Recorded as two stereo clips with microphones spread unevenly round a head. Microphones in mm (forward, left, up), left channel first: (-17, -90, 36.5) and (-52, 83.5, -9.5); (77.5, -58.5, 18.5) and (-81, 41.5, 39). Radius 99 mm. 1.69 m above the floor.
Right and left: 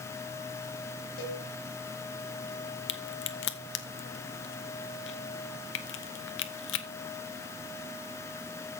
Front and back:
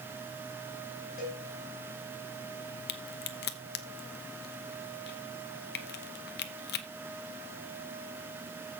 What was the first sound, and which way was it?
A cowbell, 80° right.